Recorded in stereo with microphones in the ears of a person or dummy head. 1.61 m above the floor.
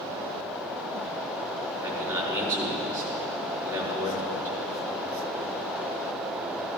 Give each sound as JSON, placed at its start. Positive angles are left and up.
{"t": 1.8, "sound": "a man speaking", "side_deg": -25, "distance_m": 3.5}